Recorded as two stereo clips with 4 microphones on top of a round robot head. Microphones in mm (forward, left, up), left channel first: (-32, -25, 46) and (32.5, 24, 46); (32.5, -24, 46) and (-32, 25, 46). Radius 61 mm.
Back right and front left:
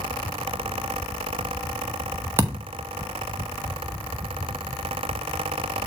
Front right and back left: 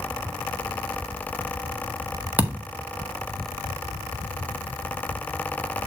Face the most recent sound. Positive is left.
turn(degrees=80)